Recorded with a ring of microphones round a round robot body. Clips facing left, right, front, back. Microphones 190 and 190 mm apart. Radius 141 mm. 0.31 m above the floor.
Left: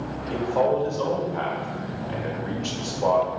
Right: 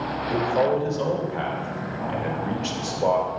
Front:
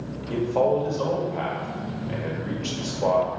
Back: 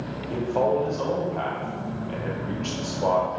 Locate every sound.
0.3 s a man speaking: 70° right, 1.2 m